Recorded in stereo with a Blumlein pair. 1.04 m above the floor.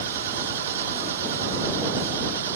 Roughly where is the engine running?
Ahead right.